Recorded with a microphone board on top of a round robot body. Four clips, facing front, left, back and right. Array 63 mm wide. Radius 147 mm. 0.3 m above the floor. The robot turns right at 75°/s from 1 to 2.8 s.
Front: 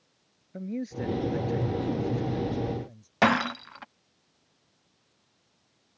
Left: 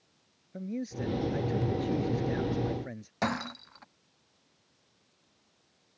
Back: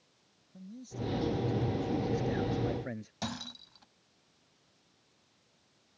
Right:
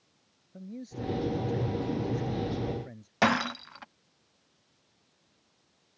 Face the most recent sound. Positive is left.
turn(degrees=-25)